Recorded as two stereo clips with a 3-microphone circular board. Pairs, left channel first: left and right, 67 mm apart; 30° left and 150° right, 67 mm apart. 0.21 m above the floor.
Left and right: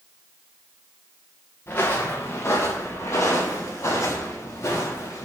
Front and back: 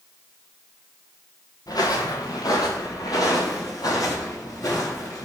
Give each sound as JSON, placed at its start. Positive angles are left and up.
{"t": 1.7, "sound": "footsteps", "azimuth_deg": 40, "distance_m": 1.5}